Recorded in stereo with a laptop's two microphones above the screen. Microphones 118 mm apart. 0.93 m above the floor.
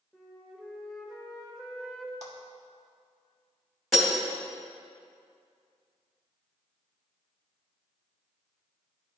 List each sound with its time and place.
0.1 s a flute: centre (ahead or behind), 0.8 m
2.2 s a clap: 75° right (ahead or behind), 1.2 m
3.9 s breaking glass: centre (ahead or behind), 1.9 m